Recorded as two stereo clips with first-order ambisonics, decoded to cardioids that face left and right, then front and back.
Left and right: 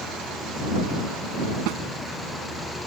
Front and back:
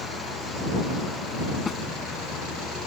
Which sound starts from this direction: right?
A snare drum, at 1.7 s.